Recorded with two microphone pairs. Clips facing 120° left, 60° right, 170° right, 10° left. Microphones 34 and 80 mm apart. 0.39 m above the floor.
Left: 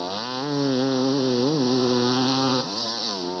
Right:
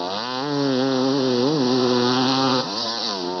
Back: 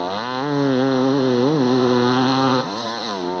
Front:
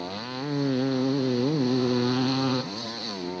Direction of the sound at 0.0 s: 140° right.